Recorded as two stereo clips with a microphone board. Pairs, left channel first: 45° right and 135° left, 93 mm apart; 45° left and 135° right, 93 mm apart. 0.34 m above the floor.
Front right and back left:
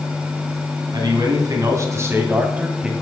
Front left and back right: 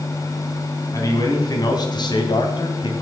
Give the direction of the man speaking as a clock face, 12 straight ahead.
9 o'clock.